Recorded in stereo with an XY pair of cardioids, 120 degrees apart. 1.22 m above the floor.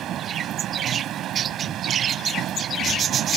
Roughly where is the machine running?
Ahead right.